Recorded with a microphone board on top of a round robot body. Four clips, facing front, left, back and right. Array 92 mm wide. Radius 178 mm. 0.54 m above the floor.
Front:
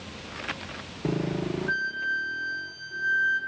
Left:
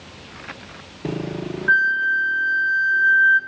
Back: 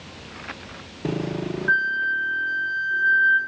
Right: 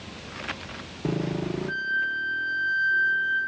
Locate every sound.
1.7 s a flute: 120° left, 1.0 m